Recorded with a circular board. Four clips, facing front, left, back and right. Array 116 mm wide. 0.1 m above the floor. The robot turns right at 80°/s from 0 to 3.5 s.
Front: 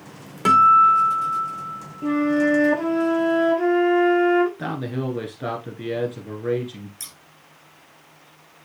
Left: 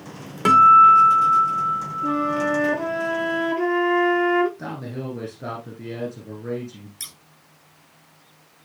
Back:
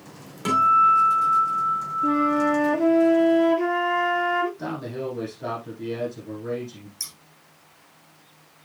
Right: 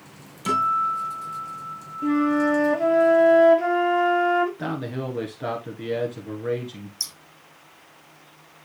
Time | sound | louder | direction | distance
0.5 | a guitar | left 11 dB, front 4 dB | 70° left | 2 m
2.0 | a flute | right 3 dB, front 2 dB | 35° right | 6 m
4.6 | a man speaking | right 3 dB, front 3 dB | 35° right | 1.6 m
7.0 | scissors | right 1 dB, front 2 dB | 75° left | 1.1 m